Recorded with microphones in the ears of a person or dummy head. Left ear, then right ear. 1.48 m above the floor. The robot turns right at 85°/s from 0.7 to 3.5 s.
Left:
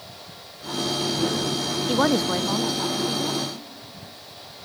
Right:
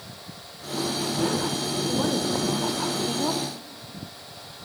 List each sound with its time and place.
1.9 s a woman speaking: 100° left, 0.9 m; by 3.5 s 125° right, 0.9 m